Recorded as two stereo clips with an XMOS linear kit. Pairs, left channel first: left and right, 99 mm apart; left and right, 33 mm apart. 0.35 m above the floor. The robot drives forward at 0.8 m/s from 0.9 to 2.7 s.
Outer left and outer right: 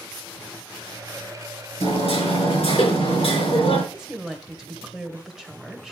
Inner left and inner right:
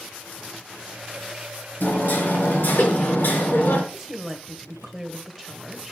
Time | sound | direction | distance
1.8 | hammering | 75° left (ahead or behind) | 4.5 m
3.9 | a woman speaking | 5° right (ahead or behind) | 1.6 m